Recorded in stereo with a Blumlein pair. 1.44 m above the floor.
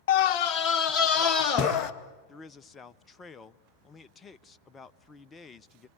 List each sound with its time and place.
0.1 s a scream: 50° left, 0.6 m; by 1.9 s 25° left, 2 m
2.3 s a man speaking: 20° left, 0.6 m